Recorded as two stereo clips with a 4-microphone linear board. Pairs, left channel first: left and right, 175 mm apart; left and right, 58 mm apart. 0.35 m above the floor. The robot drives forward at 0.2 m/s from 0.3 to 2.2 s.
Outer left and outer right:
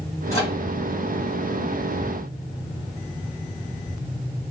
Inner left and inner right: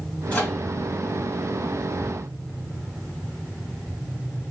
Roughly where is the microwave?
Centre.